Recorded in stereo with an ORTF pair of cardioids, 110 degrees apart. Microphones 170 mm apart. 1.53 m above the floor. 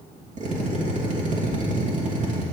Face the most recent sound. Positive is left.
turn(degrees=-45)